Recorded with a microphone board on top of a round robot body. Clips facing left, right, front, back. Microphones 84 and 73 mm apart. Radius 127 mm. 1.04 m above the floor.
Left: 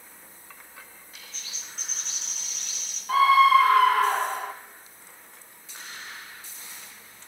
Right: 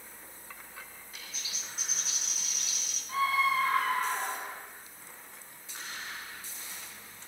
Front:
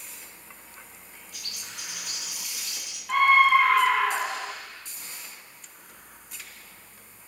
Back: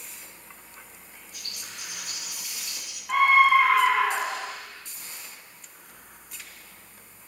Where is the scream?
90° left, 1.0 m.